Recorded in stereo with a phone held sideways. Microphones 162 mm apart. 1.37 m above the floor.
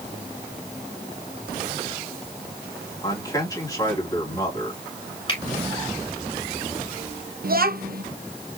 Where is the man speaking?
20° left (ahead or behind), 3.5 m.